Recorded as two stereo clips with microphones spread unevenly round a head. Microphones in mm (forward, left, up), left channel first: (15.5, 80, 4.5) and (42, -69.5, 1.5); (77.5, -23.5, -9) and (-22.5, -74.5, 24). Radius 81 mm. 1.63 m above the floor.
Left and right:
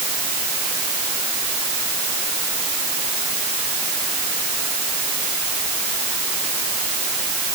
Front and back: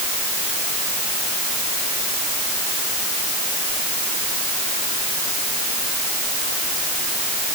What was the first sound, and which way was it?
Only background noise.